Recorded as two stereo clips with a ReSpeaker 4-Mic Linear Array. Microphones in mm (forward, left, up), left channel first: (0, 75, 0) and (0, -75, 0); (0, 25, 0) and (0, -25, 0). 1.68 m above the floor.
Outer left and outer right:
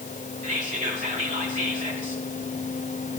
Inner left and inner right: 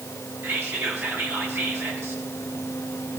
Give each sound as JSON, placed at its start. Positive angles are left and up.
{"t": 0.4, "sound": "whispering", "side_deg": -55, "distance_m": 2.5}